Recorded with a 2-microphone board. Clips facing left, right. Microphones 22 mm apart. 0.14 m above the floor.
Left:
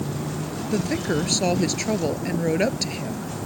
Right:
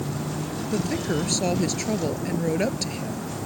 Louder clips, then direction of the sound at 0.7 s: Left 2 dB; 15° left (ahead or behind).